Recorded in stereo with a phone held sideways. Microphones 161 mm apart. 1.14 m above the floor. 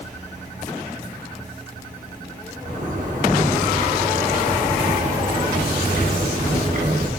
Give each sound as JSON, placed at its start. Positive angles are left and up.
{"t": 2.6, "sound": "a zipper", "side_deg": -50, "distance_m": 5.0}